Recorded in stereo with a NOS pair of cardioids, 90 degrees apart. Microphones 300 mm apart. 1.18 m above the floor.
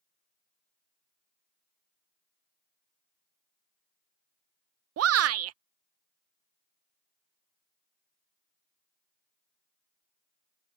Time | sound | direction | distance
5.0 | a shout | 55° right | ?